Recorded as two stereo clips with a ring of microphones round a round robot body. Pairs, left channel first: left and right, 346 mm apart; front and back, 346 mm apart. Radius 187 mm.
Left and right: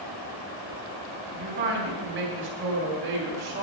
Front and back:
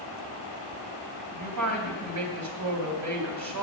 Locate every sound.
1.3 s a woman speaking: 150° right, 3 m